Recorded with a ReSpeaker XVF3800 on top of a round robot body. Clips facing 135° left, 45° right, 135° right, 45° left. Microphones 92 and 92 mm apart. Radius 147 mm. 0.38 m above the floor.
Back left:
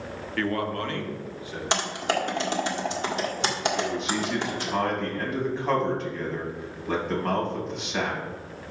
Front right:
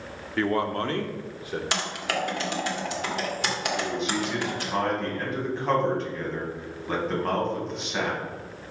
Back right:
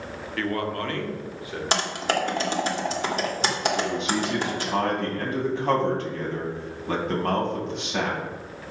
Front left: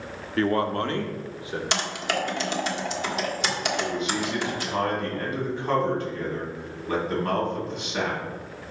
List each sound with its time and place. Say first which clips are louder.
0.4 s a man speaking: front right 3 dB, front left 4 dB; 20° left, 1.1 m; by 1.6 s 20° right, 1.7 m
1.7 s typing on a keyboard: back left 6 dB, back right 4 dB; 170° right, 1.8 m
3.8 s a man speaking: even, back right 2 dB; 135° right, 3 m